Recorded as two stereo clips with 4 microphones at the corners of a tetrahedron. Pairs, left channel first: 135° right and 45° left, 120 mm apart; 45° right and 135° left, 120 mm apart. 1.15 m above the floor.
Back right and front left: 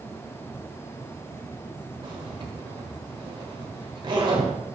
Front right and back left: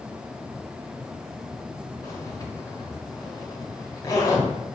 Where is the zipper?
10° left, 1.4 m.